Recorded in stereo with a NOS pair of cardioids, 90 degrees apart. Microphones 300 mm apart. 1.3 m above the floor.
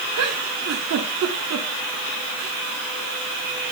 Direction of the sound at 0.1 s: 60° right.